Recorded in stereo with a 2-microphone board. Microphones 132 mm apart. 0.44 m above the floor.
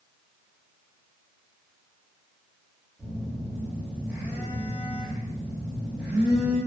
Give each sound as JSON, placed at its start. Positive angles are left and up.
{"t": 3.0, "sound": "a phone buzzing", "side_deg": -10, "distance_m": 1.5}